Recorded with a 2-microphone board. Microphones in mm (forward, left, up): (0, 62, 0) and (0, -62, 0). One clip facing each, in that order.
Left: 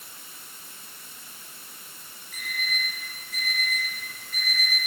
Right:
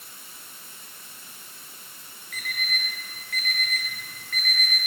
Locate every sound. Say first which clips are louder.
2.3 s an alarm clock: even; 60° right (ahead or behind), 5 m